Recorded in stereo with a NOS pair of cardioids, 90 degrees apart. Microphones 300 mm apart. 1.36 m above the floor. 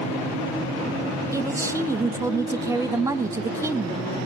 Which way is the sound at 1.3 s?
10° right.